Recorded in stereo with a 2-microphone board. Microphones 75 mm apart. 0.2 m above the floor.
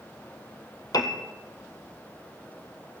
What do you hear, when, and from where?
0.9 s a piano: 60° left (ahead or behind), 1.0 m